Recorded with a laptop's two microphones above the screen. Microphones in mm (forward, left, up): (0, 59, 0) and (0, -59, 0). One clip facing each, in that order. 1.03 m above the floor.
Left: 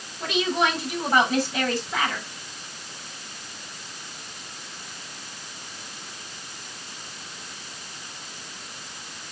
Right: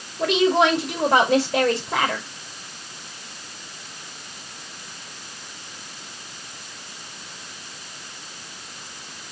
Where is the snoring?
No snoring in this recording.